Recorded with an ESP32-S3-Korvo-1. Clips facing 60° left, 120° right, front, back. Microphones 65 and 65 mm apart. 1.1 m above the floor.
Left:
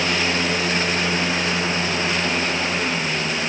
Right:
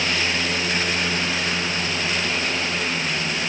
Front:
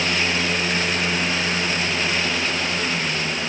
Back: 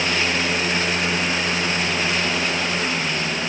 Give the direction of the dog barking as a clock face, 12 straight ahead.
I don't hear a dog barking.